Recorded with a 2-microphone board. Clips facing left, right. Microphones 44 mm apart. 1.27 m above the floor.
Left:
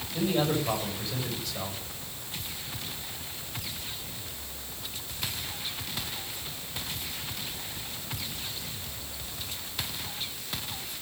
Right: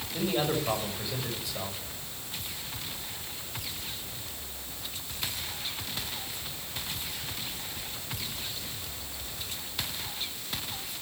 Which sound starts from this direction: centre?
A man speaking, at 0.1 s.